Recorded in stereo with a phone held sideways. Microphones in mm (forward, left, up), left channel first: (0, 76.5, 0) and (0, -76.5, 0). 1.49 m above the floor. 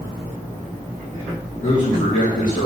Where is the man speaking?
55° left (ahead or behind), 2.5 m; by 2.7 s 70° left (ahead or behind), 2.5 m.